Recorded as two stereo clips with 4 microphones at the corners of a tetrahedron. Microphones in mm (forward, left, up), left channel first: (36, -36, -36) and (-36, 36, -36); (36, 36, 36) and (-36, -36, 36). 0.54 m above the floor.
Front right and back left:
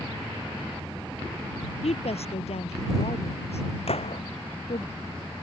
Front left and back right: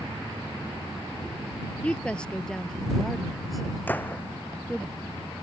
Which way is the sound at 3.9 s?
30° right.